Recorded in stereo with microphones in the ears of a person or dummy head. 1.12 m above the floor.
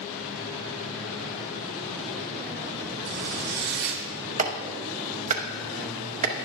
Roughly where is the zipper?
Right.